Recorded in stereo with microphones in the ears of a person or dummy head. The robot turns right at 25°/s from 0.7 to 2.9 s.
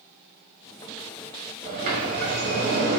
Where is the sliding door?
125° right, 1.1 m; by 3.0 s 95° right, 1.1 m.